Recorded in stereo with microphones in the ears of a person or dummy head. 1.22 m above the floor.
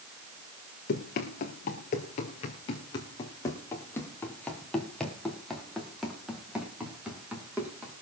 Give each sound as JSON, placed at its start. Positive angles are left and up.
{"t": 0.9, "sound": "running footsteps", "side_deg": 50, "distance_m": 1.7}